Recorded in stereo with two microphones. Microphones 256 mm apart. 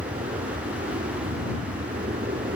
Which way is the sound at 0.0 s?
35° right (ahead or behind).